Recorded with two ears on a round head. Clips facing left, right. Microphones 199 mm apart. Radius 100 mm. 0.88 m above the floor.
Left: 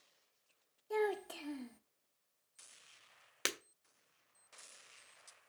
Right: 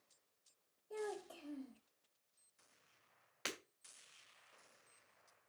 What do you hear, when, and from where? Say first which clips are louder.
0.9 s a child speaking: left 9 dB; 80° left, 1.1 m
3.5 s breaking glass: left 5 dB; 60° left (ahead or behind), 1.6 m